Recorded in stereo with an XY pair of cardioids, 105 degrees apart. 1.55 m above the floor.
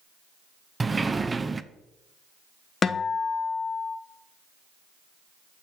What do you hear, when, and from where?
0.8 s a sliding door: 20° right, 0.6 m
2.8 s a guitar: 40° left, 0.9 m